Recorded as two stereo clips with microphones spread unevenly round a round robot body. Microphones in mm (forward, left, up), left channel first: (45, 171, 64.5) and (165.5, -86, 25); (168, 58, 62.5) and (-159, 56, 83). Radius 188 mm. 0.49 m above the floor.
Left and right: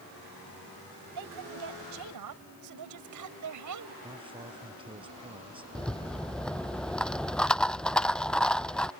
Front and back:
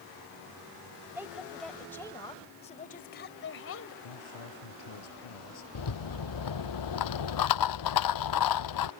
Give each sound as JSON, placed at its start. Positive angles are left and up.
{"t": 1.1, "sound": "a woman speaking", "azimuth_deg": -95}
{"t": 4.0, "sound": "a man speaking", "azimuth_deg": 10}
{"t": 5.8, "sound": "a rattle", "azimuth_deg": 30}